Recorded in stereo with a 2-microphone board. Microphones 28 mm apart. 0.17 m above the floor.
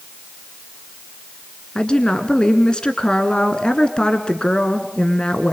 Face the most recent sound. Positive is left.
turn(degrees=30)  # may be behind; listen again after turning